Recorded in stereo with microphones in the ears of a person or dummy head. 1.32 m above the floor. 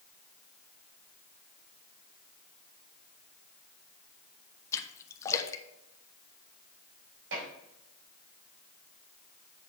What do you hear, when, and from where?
4.7 s a splash: 20° left (ahead or behind), 1.0 m
7.3 s dishes clattering: 80° right, 4.5 m